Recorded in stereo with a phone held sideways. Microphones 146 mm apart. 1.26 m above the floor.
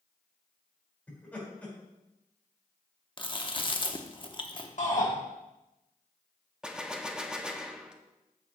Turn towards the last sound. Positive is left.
turn(degrees=-5)  # may be behind; listen again after turning